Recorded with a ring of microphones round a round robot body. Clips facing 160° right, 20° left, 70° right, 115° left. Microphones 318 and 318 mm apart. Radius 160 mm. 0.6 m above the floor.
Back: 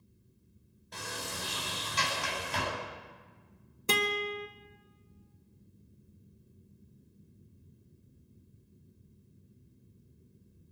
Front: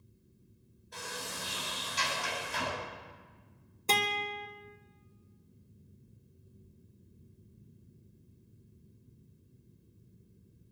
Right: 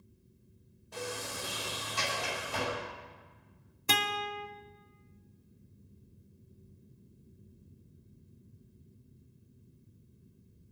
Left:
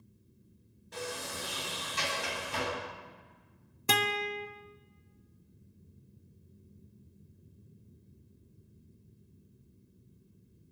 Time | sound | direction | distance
0.9 | a sliding door | straight behind | 4.5 m
3.9 | a guitar | 125° left | 1.0 m